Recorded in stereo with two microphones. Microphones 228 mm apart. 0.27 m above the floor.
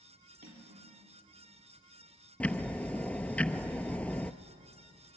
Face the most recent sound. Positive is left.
turn(degrees=5)  # may be behind; listen again after turning